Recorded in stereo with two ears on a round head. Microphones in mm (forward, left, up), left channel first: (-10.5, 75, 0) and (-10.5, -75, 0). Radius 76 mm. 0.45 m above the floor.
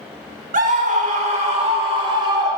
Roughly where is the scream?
Right.